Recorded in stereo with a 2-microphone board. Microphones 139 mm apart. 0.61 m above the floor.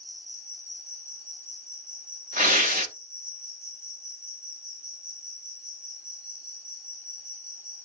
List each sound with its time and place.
0.0 s an insect: 70° right (ahead or behind), 1.2 m
2.4 s tearing paper: 70° right (ahead or behind), 0.9 m